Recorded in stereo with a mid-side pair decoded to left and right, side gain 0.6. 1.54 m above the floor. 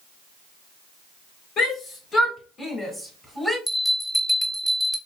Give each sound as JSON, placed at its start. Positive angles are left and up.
{"t": 1.6, "sound": "a shout", "azimuth_deg": 45, "distance_m": 2.5}
{"t": 3.7, "sound": "a bell", "azimuth_deg": 10, "distance_m": 1.5}